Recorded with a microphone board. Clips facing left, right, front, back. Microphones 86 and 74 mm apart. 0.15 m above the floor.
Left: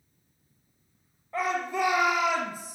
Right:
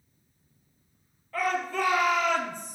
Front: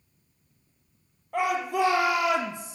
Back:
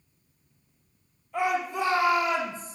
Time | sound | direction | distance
1.3 | a shout | 25° left | 3.5 m